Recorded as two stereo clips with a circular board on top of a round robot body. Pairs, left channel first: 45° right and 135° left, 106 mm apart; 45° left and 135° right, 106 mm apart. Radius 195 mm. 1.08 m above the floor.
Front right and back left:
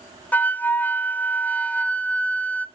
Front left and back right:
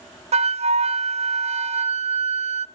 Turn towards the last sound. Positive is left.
turn(degrees=-120)